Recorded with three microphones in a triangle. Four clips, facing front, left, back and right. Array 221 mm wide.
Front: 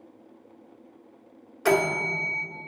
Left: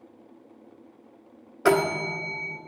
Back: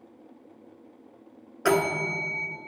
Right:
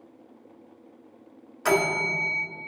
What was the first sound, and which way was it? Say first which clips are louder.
A bell: left 2 dB, front 1 dB; 105° left.